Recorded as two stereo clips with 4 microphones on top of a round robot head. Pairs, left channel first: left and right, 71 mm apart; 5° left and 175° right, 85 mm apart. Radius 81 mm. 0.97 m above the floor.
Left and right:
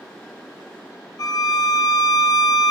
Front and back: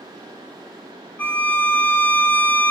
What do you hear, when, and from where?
1.2 s a violin: 70° left, 1.0 m